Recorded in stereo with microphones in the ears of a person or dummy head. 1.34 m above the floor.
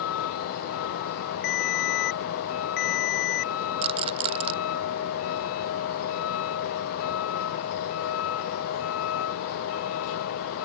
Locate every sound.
0.0 s a vehicle: 85° left
1.4 s a ringtone: 50° left (ahead or behind)
3.8 s a rattle: 30° right (ahead or behind)